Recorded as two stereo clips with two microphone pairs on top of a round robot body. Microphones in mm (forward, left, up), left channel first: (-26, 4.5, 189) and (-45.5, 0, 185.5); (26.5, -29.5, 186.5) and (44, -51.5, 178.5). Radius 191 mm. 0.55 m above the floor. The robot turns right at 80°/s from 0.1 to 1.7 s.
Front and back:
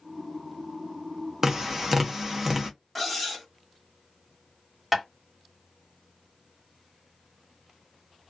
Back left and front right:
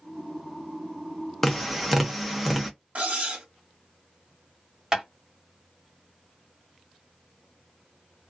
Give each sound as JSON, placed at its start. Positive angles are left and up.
{"t": 1.4, "sound": "tapping", "azimuth_deg": -130, "distance_m": 1.1}
{"t": 3.0, "sound": "cutlery clinking", "azimuth_deg": -80, "distance_m": 1.4}
{"t": 4.9, "sound": "tapping", "azimuth_deg": -95, "distance_m": 1.8}